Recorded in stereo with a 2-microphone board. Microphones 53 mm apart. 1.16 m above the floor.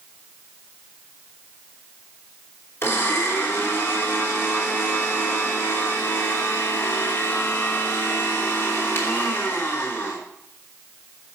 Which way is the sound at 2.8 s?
55° left (ahead or behind).